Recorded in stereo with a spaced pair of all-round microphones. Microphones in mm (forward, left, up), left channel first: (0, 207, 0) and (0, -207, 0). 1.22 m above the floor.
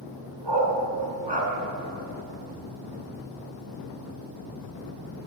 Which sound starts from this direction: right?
A dog barking, at 0.4 s.